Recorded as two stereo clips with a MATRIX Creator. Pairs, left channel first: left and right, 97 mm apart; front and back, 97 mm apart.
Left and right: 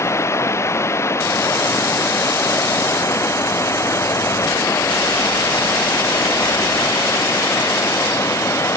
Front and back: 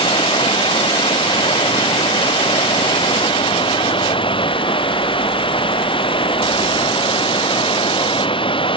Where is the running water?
30° left.